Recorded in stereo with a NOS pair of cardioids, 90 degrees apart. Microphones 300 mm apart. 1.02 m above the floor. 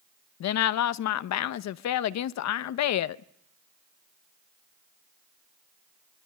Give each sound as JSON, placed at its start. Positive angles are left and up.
{"t": 0.4, "sound": "a woman speaking", "azimuth_deg": 65, "distance_m": 0.8}